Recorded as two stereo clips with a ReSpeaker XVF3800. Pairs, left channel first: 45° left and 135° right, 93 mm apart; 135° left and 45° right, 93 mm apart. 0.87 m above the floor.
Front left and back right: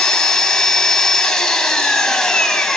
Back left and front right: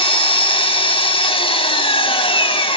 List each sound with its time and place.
0.0 s an engine running: 130° left, 2 m